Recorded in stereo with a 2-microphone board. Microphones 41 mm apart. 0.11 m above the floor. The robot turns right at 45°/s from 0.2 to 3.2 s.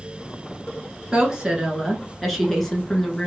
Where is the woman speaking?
20° right (ahead or behind), 1.2 m; by 3.3 s 20° left (ahead or behind), 1.2 m.